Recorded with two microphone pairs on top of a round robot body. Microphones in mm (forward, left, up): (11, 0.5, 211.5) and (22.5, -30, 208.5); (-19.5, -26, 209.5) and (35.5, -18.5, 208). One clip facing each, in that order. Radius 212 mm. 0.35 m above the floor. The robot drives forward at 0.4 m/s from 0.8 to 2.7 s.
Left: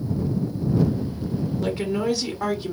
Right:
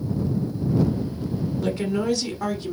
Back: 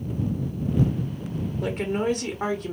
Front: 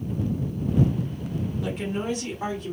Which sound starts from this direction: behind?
A woman speaking, at 1.6 s.